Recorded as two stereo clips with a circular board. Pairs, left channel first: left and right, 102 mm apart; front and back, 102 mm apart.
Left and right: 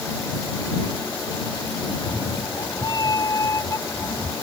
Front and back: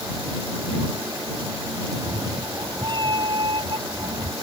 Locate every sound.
1.9 s a cat meowing: 130° left; by 4.3 s 155° left